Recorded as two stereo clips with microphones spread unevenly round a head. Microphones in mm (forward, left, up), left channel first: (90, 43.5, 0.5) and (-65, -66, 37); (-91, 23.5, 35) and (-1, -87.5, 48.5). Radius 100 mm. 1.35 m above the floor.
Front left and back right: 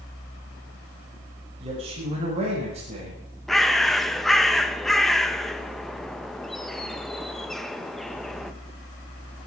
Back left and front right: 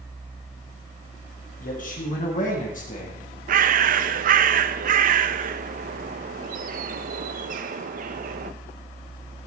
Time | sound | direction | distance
1.6 | a man speaking | 155° left | 6 m
3.5 | a bird | 60° right | 0.8 m